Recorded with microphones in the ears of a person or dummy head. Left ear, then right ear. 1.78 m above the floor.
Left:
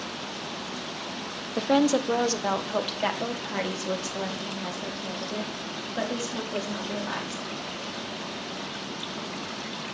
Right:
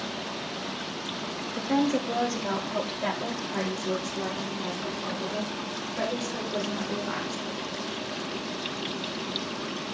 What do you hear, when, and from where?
1.6 s a woman speaking: 60° left (ahead or behind), 0.7 m